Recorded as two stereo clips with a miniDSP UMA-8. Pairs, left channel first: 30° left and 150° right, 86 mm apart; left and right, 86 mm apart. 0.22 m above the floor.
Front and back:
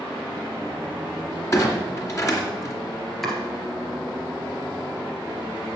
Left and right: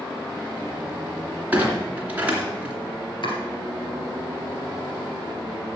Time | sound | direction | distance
1.5 | a clunk | 20° right | 2.5 m
3.2 | chopping | 115° left | 2.5 m